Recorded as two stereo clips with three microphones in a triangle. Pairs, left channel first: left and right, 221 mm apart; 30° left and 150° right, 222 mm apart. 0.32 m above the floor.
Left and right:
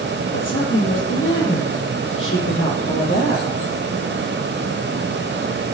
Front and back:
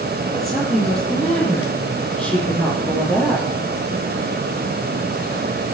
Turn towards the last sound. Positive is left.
turn(degrees=115)